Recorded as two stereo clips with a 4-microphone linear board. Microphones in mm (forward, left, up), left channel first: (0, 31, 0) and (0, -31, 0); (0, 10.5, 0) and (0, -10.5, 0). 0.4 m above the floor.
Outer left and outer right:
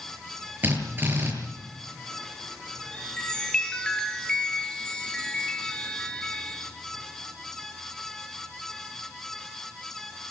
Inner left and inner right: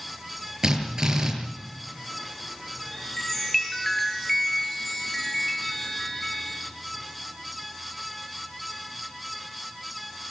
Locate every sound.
0.6 s a drill: 35° right (ahead or behind), 7 m
2.9 s a chime: 15° left (ahead or behind), 5.5 m